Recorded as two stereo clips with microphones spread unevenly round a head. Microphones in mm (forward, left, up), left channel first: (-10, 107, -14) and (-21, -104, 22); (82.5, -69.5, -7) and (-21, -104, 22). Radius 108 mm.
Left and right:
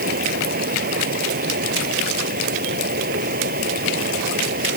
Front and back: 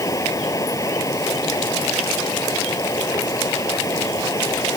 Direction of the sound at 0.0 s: 40° right.